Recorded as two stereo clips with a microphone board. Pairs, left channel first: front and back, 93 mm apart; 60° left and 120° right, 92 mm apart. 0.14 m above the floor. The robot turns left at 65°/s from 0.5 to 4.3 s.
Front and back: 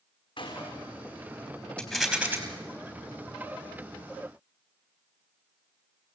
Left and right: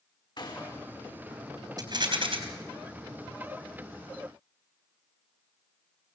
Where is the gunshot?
30° left, 5.5 m; by 1.0 s 5° right, 5.5 m.